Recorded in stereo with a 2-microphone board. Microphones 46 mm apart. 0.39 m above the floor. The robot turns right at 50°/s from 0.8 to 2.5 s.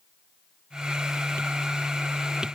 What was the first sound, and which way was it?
Only background noise.